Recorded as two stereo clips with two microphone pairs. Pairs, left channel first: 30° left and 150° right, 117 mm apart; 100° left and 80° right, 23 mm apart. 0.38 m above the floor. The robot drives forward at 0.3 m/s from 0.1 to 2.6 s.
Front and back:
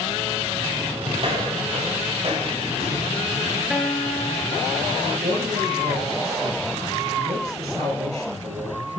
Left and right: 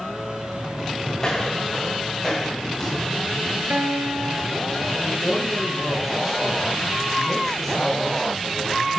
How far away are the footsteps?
About 9 m.